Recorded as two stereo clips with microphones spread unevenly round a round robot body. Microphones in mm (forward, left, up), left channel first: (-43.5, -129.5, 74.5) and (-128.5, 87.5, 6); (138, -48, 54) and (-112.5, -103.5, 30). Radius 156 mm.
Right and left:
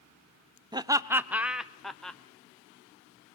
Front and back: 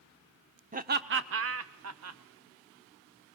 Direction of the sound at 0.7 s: 155° left.